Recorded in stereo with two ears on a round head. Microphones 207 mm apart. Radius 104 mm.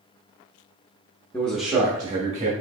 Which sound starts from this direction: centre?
A man speaking, at 1.3 s.